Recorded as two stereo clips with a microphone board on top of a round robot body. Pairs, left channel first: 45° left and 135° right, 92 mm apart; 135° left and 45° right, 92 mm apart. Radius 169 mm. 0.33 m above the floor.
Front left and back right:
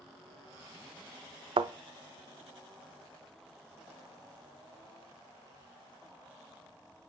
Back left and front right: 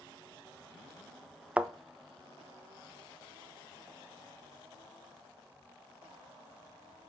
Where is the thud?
120° right, 0.5 m.